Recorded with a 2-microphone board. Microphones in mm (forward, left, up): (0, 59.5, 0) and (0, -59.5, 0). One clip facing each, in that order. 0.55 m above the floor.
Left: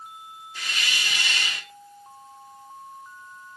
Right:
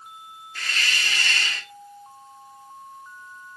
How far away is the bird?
I don't hear a bird.